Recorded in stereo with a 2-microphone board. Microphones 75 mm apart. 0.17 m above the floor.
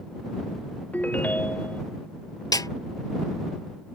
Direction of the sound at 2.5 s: 60° left (ahead or behind).